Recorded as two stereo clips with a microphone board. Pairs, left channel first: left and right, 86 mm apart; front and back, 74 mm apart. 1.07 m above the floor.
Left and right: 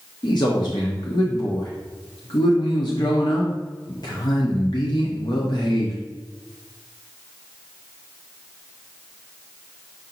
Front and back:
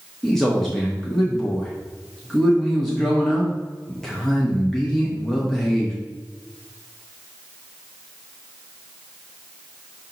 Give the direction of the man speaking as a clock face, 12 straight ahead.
9 o'clock.